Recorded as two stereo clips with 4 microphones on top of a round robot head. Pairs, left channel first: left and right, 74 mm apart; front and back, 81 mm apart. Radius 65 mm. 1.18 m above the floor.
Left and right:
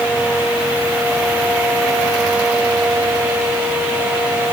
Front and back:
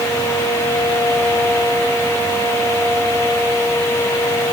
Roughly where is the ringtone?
No ringtone in this recording.